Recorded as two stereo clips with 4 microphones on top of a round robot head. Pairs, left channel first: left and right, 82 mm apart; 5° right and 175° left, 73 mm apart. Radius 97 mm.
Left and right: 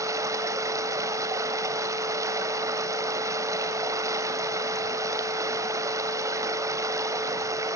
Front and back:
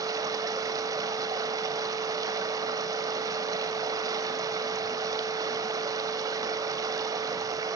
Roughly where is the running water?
Behind right.